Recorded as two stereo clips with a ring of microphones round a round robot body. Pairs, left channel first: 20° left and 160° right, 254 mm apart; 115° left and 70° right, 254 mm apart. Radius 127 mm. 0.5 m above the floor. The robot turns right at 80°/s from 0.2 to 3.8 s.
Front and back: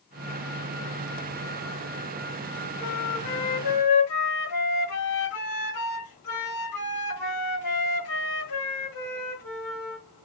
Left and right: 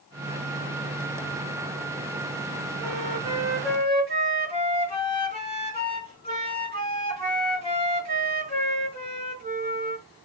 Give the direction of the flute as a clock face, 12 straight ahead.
1 o'clock.